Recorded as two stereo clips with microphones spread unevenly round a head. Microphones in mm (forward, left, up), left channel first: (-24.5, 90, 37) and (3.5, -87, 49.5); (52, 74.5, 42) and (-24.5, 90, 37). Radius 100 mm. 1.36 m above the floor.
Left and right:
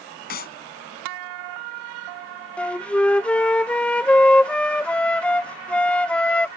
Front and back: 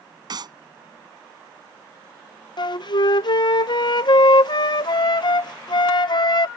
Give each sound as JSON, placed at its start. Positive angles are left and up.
{"t": 0.3, "sound": "a clap", "azimuth_deg": 140}
{"t": 2.6, "sound": "a flute", "azimuth_deg": 15}